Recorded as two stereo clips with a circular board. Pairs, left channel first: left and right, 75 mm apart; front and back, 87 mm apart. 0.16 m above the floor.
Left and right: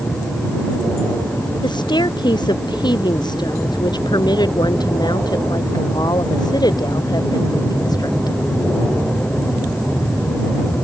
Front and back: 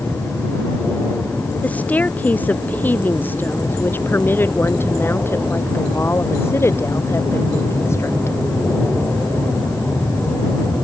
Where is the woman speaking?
75° left; by 8.4 s 60° left.